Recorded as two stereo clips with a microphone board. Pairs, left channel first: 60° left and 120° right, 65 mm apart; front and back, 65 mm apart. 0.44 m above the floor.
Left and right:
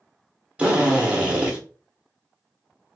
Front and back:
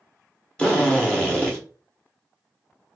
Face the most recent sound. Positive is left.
turn(degrees=-60)